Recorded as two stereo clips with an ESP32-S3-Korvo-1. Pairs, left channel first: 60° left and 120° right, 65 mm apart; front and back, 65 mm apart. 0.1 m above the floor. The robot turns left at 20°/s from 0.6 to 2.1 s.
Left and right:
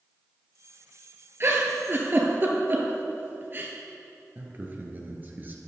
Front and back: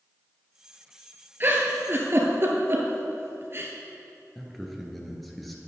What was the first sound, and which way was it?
A giggle, 145° right.